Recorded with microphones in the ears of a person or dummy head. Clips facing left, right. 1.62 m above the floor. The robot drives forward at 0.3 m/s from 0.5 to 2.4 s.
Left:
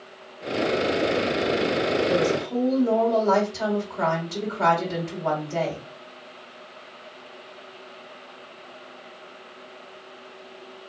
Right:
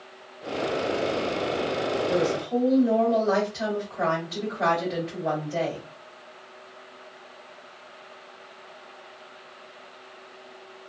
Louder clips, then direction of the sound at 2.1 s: Left 2 dB; 60° left (ahead or behind).